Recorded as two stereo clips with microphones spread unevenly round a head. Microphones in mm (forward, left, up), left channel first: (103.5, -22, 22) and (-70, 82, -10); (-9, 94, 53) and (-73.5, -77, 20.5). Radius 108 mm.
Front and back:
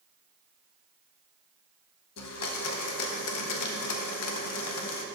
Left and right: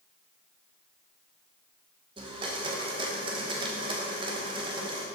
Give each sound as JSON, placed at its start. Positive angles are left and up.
{"t": 2.2, "sound": "a blender", "azimuth_deg": -40, "distance_m": 0.9}